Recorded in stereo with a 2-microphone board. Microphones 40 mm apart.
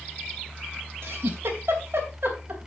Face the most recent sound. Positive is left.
turn(degrees=-70)  # may be behind; listen again after turning